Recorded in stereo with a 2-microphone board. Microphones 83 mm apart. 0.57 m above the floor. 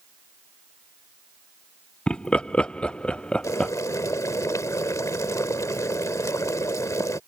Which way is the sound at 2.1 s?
10° left (ahead or behind).